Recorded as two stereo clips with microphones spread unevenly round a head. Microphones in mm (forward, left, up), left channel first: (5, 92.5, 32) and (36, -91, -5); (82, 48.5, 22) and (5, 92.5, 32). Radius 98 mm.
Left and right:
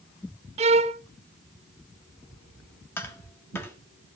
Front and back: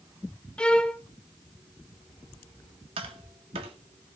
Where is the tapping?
175° left, 1.3 m.